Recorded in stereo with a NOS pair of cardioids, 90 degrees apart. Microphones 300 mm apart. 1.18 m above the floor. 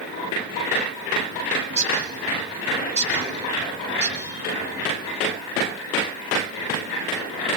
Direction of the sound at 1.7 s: 25° right.